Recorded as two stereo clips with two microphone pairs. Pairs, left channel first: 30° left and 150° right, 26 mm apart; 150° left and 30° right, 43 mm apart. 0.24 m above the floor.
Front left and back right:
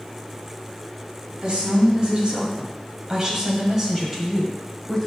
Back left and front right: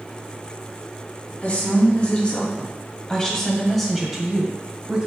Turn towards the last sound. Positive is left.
turn(degrees=-60)